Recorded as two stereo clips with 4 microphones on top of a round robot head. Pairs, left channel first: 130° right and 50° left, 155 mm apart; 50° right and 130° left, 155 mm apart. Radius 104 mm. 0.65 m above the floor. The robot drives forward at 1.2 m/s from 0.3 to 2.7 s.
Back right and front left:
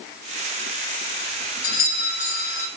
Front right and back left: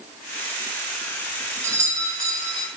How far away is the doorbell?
About 5 m.